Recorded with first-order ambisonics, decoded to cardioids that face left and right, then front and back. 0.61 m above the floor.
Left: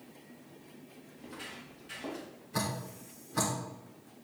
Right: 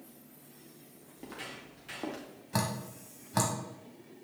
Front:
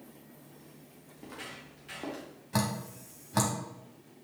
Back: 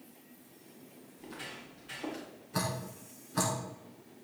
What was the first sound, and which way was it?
Footsteps, 65° right.